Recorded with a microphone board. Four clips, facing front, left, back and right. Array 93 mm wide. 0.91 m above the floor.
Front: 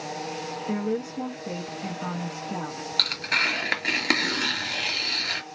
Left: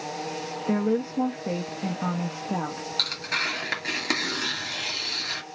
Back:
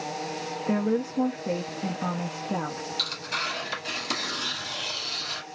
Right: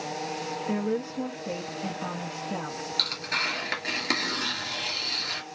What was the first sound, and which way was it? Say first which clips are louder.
A woman speaking: left 5 dB, back 3 dB; 130° left.